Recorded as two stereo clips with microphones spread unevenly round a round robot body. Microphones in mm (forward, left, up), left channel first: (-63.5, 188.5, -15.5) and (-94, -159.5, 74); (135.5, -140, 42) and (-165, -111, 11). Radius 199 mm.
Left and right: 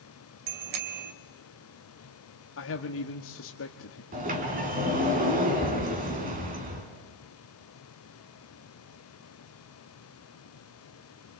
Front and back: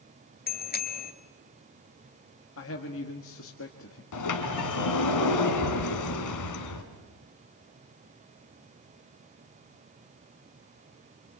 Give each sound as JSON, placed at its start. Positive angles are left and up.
{"t": 0.5, "sound": "a bicycle bell", "azimuth_deg": -65, "distance_m": 3.0}
{"t": 2.6, "sound": "a man speaking", "azimuth_deg": 45, "distance_m": 1.3}
{"t": 4.1, "sound": "a sliding door", "azimuth_deg": -25, "distance_m": 3.0}